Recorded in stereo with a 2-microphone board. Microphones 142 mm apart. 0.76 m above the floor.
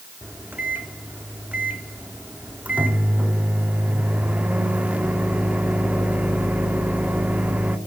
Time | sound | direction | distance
0.2 | a microwave | 10° right (ahead or behind) | 1.1 m